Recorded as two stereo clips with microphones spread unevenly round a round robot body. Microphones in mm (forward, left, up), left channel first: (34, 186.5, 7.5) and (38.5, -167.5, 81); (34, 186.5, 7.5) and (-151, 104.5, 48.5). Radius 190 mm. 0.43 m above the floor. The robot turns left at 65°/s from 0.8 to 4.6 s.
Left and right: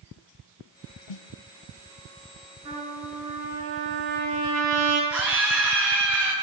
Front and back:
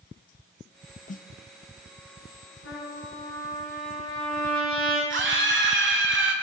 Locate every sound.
1.1 s a snare drum: 85° left, 0.7 m; by 1.3 s 75° left, 0.7 m
2.6 s a trumpet: 10° right, 9 m; by 5.0 s 140° right, 9 m
5.1 s a scream: 175° right, 8 m